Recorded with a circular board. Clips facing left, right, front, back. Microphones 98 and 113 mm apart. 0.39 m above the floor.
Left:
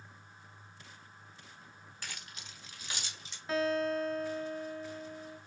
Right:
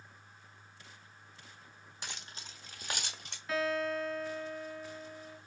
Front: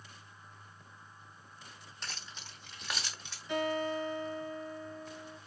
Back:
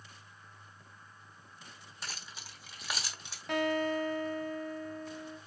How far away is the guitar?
About 1.4 m.